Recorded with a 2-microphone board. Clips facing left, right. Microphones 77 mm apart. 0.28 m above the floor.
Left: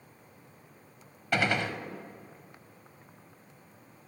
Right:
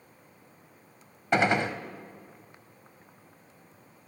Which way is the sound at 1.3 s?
25° right (ahead or behind).